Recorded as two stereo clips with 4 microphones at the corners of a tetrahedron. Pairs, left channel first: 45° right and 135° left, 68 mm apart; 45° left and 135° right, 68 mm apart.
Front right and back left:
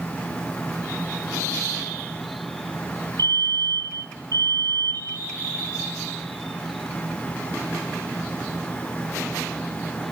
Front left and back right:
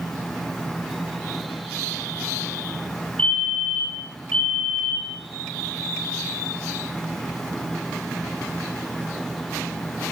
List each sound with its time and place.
3.2 s a fire alarm: 120° left, 9.5 m